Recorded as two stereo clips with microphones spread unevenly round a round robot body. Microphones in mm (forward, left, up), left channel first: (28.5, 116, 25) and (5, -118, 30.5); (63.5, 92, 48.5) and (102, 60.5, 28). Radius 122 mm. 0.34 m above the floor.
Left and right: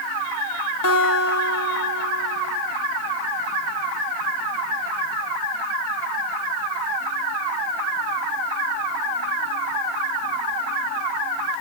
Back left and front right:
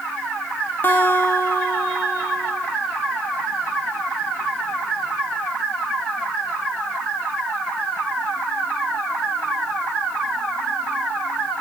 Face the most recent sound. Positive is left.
turn(degrees=90)